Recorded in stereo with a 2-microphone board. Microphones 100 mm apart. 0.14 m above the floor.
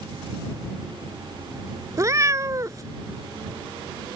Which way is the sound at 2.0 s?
35° right (ahead or behind).